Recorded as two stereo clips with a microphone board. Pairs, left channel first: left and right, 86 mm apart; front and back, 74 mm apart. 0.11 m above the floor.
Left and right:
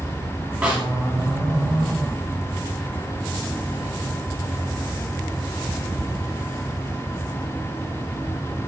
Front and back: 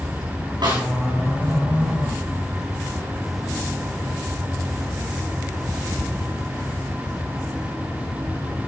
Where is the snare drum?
170° right, 5.5 m.